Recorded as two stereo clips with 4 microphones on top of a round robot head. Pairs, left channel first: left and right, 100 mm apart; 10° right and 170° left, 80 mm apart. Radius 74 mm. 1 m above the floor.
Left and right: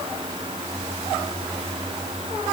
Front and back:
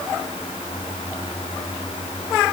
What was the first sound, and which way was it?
Only background noise.